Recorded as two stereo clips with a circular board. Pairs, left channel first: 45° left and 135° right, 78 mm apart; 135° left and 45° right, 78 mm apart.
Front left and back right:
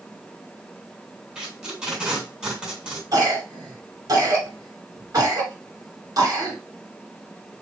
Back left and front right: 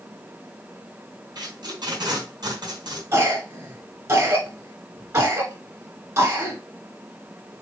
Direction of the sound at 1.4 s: 60° right.